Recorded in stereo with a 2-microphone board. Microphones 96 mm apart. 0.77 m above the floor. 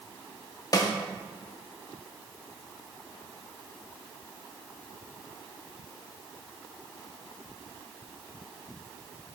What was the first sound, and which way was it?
A snare drum, 40° left (ahead or behind).